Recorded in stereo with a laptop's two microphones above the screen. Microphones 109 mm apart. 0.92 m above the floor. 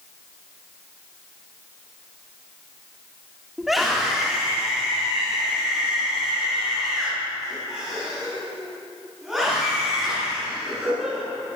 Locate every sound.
3.6 s a scream: centre (ahead or behind), 2.5 m; by 11.2 s 5° right (ahead or behind), 12.5 m